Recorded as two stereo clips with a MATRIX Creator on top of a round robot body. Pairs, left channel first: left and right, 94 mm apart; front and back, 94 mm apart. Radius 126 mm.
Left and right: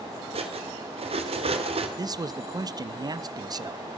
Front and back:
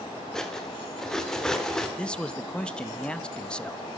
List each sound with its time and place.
0.3 s cutlery clinking: 85° right, 1.5 m
2.0 s a man speaking: 75° right, 0.7 m